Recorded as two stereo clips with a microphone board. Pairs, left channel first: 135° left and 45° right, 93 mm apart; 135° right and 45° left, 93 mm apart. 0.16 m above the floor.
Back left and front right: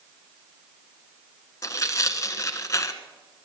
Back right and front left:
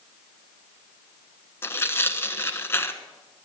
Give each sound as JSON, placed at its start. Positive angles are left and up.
{"t": 1.6, "sound": "tearing paper", "azimuth_deg": 175, "distance_m": 1.2}